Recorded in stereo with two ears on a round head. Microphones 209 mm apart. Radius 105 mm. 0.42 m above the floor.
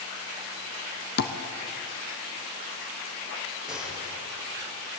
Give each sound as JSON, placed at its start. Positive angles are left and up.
{"t": 1.2, "sound": "tapping", "side_deg": 45, "distance_m": 1.3}
{"t": 3.7, "sound": "a gunshot", "side_deg": -5, "distance_m": 7.5}